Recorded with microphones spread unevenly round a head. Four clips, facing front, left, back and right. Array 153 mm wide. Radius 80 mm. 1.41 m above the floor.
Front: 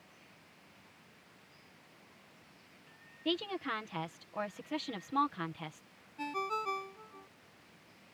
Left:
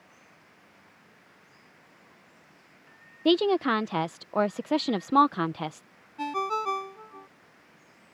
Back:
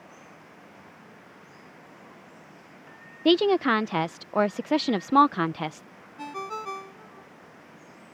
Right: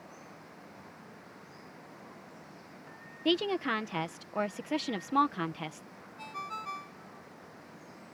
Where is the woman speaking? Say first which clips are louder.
Left 7 dB, back 16 dB; 155° left.